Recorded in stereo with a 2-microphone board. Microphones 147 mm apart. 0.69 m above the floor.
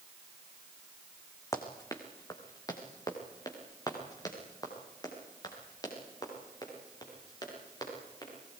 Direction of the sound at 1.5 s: 20° left (ahead or behind).